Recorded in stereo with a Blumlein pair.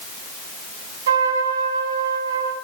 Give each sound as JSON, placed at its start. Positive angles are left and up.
{"t": 1.1, "sound": "a trumpet", "azimuth_deg": -60, "distance_m": 5.0}